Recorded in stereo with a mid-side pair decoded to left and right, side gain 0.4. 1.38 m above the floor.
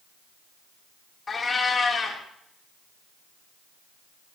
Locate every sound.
1.3 s a cat meowing: 40° left, 2 m